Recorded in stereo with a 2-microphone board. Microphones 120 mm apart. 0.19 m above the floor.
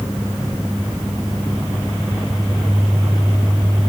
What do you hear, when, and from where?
Only background noise.